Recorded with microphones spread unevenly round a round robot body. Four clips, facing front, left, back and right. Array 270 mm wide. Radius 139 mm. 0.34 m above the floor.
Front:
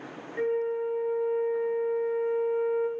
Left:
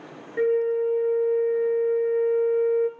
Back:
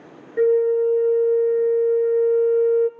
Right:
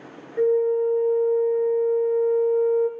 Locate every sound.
0.4 s a flute: straight behind, 0.7 m